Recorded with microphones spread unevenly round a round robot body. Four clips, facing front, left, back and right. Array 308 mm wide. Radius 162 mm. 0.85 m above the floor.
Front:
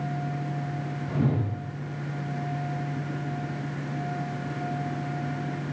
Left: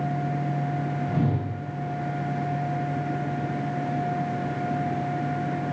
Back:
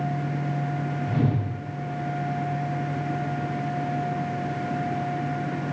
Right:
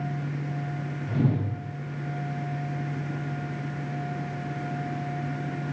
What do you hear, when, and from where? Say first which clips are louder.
1.1 s a whoosh: right 3 dB, even; 165° right, 1.3 m